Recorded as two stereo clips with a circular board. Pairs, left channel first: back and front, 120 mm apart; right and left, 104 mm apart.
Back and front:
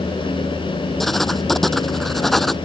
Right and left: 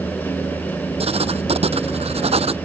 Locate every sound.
1.0 s writing: 90° left